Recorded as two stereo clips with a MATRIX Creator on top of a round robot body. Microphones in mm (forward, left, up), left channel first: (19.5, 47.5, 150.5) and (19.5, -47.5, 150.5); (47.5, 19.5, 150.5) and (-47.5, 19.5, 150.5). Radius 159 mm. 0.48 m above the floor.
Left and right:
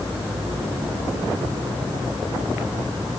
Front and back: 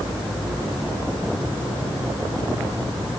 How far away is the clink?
No clink in this recording.